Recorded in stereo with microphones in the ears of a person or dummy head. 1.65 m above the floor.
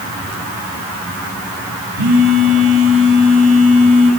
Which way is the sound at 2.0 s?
65° right (ahead or behind).